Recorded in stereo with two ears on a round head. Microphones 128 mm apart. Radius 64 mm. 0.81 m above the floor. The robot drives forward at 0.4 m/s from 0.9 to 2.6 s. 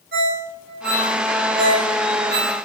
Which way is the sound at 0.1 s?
85° right.